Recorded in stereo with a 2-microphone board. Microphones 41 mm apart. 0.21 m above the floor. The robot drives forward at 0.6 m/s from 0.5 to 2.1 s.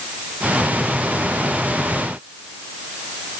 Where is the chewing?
I don't hear chewing.